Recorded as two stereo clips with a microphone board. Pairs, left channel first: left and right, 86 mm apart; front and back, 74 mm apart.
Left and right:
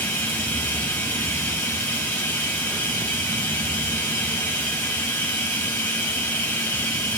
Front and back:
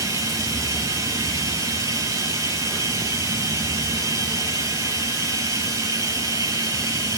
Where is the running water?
155° left, 7 m.